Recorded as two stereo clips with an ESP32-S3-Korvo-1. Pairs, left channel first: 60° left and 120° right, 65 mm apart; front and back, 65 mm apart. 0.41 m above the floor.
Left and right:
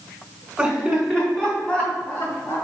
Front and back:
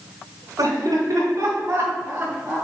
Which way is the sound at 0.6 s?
160° left.